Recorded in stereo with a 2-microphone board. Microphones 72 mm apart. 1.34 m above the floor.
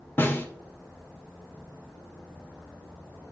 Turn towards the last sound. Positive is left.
turn(degrees=30)  # may be behind; listen again after turning